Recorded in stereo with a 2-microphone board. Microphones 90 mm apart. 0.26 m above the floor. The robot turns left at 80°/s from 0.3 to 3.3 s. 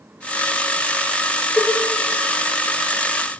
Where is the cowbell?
10° left (ahead or behind), 0.8 m; by 1.8 s 15° left (ahead or behind), 0.8 m.